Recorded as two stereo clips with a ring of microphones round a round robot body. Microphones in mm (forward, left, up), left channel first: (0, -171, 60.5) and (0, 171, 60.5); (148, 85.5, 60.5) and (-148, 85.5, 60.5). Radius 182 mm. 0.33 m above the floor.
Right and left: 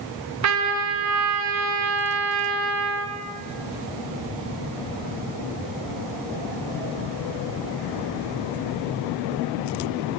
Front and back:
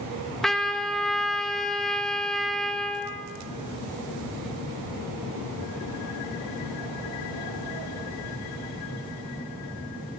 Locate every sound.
0.4 s a trumpet: 90° left, 1.8 m